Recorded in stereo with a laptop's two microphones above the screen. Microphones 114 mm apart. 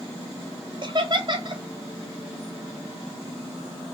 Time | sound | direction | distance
0.8 | laughter | 45° right (ahead or behind) | 0.7 m